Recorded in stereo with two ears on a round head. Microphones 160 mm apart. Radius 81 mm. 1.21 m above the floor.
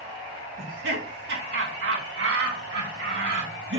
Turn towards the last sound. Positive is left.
turn(degrees=-60)  # may be behind; listen again after turning